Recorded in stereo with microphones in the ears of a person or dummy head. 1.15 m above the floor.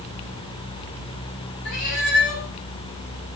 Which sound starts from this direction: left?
A cat meowing, at 1.6 s.